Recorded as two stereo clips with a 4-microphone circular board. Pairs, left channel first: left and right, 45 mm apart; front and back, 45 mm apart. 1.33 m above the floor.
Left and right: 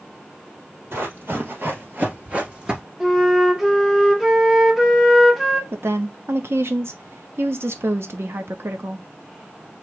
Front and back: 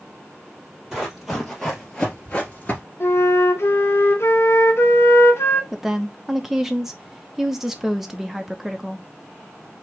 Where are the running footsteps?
95° right, 2.5 m; by 2.8 s 25° right, 1.6 m.